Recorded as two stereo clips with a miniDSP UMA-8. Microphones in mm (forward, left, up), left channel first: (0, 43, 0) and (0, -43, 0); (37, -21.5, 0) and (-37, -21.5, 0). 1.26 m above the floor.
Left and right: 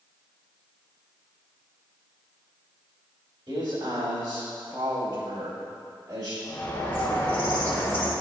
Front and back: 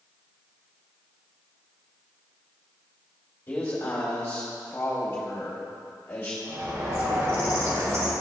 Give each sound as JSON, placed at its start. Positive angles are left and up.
{"t": 3.5, "sound": "a man speaking", "azimuth_deg": -55, "distance_m": 2.0}
{"t": 6.4, "sound": "a bird", "azimuth_deg": 145, "distance_m": 1.4}